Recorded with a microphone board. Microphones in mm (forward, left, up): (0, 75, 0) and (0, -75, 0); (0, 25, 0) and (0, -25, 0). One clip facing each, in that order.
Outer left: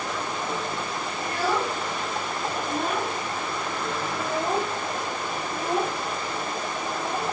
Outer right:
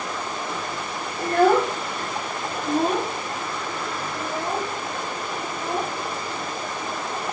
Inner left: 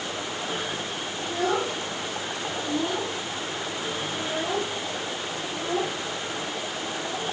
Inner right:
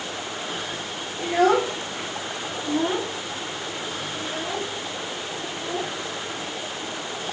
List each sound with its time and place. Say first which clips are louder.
1.2 s a child speaking: outer right 9 dB, inner right 7 dB; 50° right (ahead or behind), 2.5 m; by 7.3 s 25° left (ahead or behind), 5.5 m